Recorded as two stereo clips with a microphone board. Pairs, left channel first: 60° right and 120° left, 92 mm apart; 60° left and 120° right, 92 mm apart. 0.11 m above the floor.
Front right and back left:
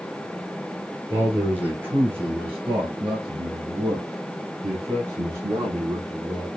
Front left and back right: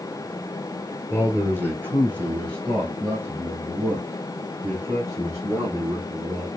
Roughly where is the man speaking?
Behind.